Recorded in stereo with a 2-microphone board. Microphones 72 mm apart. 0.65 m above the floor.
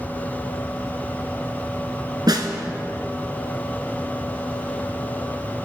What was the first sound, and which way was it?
A snare drum, 70° right (ahead or behind).